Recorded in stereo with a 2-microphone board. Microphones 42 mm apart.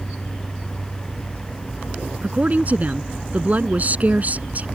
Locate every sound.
2.2 s a woman speaking: 35° right (ahead or behind)